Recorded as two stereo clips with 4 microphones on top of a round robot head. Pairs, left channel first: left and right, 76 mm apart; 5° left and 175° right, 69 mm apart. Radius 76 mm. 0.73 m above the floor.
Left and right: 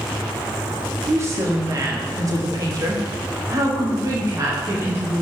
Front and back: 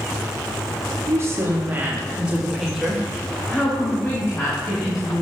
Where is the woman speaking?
140° right, 1.6 m; by 5.2 s 40° right, 2 m.